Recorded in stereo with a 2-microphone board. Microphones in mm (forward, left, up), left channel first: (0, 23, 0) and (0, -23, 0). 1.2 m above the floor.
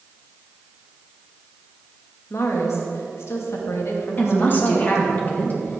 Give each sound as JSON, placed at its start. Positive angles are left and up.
{"t": 2.3, "sound": "a woman speaking", "side_deg": 70, "distance_m": 1.9}
{"t": 4.2, "sound": "a woman speaking", "side_deg": 40, "distance_m": 1.7}